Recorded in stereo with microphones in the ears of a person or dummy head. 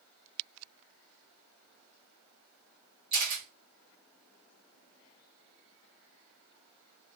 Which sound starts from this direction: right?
A camera shutter, at 3.1 s.